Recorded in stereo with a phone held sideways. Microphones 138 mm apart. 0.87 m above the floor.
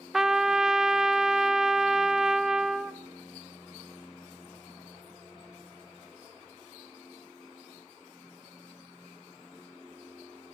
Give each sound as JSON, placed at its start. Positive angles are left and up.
{"t": 0.1, "sound": "a trumpet", "side_deg": -5, "distance_m": 0.5}